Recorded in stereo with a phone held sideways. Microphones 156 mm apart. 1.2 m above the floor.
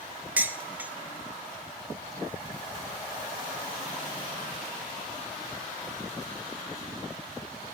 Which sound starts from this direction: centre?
Dishes clattering, at 0.4 s.